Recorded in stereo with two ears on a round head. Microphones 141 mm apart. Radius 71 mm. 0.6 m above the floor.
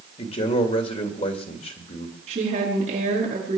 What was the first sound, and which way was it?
A man speaking, 40° left (ahead or behind).